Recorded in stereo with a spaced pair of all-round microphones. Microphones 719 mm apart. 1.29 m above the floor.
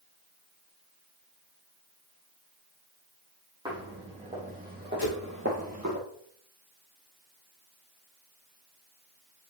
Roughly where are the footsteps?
Centre.